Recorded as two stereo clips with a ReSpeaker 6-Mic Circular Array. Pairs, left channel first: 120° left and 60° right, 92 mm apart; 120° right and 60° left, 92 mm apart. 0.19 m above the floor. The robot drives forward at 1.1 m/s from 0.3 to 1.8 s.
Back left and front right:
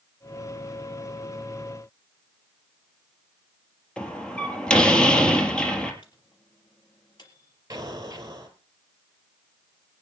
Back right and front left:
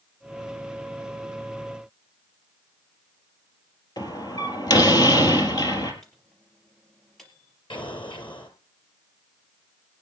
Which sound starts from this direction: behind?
A door slam, at 4.0 s.